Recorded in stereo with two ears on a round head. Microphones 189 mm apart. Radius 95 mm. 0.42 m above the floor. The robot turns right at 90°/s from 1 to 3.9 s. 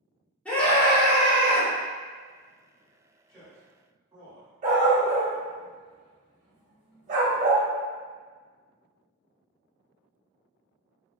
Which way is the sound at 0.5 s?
5° left (ahead or behind).